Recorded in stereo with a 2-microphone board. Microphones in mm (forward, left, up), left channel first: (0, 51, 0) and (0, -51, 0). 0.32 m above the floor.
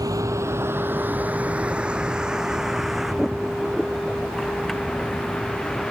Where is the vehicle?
35° right (ahead or behind); by 5.9 s 5° left (ahead or behind).